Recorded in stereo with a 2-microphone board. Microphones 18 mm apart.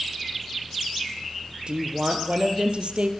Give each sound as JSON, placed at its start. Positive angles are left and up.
{"t": 1.7, "sound": "a woman speaking", "side_deg": -70, "distance_m": 3.5}